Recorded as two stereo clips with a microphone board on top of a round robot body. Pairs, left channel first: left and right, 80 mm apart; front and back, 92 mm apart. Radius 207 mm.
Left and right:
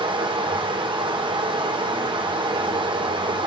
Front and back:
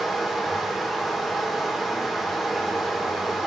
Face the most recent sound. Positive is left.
turn(degrees=-90)